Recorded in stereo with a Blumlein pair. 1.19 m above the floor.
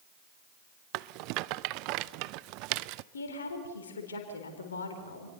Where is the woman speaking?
70° left, 4 m.